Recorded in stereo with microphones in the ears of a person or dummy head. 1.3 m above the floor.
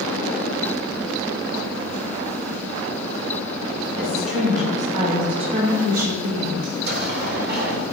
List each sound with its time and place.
4.0 s a woman speaking: 35° right (ahead or behind), 5 m; by 6.5 s 70° right (ahead or behind), 6 m
6.6 s an explosion: 65° right (ahead or behind), 1.7 m